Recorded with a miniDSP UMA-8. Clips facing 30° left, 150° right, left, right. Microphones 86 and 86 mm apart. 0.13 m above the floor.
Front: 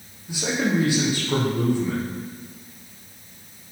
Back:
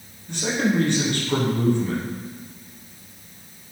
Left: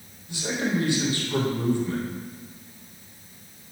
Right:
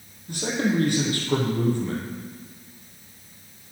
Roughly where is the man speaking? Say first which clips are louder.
Back 1 dB, right 2 dB; ahead right.